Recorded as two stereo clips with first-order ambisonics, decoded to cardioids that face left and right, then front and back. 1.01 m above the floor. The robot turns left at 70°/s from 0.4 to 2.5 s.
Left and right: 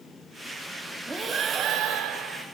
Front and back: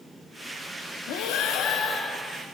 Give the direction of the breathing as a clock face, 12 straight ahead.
12 o'clock.